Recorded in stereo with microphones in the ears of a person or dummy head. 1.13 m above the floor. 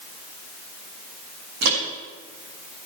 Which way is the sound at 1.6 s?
70° right (ahead or behind).